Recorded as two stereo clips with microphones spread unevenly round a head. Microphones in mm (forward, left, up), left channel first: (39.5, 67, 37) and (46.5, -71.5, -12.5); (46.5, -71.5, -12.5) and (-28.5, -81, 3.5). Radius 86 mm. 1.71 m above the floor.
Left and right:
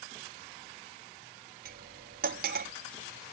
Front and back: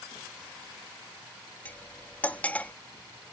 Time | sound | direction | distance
1.6 | cutlery clinking | 70° right | ?